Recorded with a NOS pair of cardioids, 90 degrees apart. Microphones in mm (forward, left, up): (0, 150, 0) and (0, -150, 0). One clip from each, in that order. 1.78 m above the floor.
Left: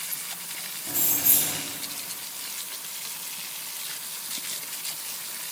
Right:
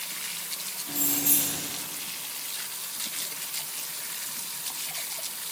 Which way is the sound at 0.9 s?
45° left.